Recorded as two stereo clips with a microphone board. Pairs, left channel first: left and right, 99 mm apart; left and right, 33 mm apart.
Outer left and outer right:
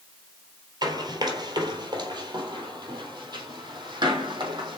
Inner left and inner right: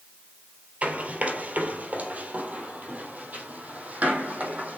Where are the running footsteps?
40° right (ahead or behind), 2 m; by 4.8 s 45° right (ahead or behind), 4 m.